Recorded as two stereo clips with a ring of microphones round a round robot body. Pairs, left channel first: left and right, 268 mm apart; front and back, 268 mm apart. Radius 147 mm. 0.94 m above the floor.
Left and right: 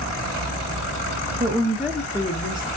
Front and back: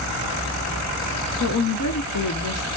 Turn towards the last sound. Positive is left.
turn(degrees=35)